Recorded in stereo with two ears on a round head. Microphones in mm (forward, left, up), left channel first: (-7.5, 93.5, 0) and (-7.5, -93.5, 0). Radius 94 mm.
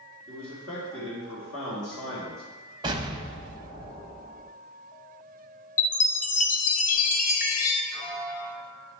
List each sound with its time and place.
0.3 s a man speaking: 60° left (ahead or behind), 3 m
2.8 s an explosion: 20° right (ahead or behind), 0.6 m
5.8 s a chime: 40° left (ahead or behind), 0.6 m
7.9 s a piano: 40° left (ahead or behind), 2.5 m